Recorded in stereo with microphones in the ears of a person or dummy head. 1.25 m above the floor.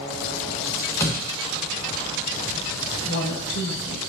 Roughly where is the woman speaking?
Left.